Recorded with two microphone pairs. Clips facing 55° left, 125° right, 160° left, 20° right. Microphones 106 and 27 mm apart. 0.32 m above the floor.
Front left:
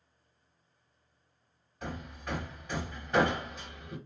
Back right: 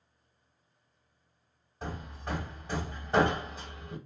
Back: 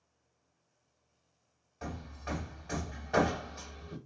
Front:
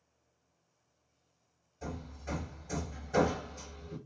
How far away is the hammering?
About 1.0 m.